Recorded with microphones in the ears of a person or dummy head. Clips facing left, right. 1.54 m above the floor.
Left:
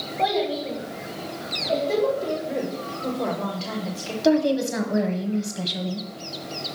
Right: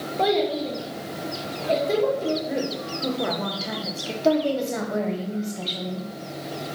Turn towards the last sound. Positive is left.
turn(degrees=15)  # may be behind; listen again after turning